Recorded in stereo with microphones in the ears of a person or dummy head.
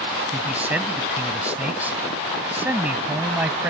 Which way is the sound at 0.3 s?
10° right (ahead or behind).